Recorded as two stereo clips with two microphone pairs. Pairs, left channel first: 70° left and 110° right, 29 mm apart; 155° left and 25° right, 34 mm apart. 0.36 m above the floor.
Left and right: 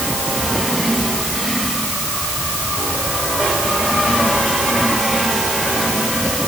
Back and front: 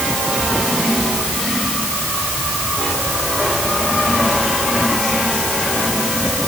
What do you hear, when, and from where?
Only background noise.